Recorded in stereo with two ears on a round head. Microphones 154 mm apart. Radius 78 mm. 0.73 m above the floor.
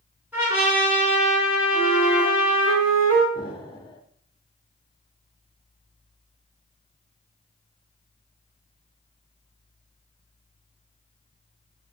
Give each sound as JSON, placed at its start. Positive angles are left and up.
{"t": 0.3, "sound": "a trumpet", "side_deg": -10, "distance_m": 5.5}
{"t": 1.7, "sound": "a flute", "side_deg": -15, "distance_m": 3.0}
{"t": 3.4, "sound": "an explosion", "side_deg": 30, "distance_m": 1.2}